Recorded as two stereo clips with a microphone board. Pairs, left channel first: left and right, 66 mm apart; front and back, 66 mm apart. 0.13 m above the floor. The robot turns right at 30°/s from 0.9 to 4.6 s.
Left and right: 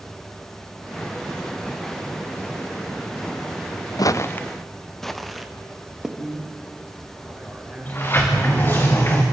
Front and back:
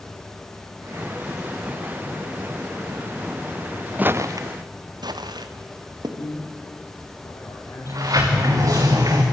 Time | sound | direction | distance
4.0 | footsteps | 115° left | 0.6 m
6.2 | a man speaking | 30° left | 4.5 m
7.8 | a sliding door | 150° left | 4 m